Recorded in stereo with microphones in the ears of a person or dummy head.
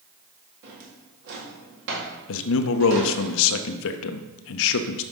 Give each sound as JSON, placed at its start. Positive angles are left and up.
{"t": 0.6, "sound": "a drawer", "side_deg": -60, "distance_m": 1.9}
{"t": 2.3, "sound": "a man speaking", "side_deg": 70, "distance_m": 0.7}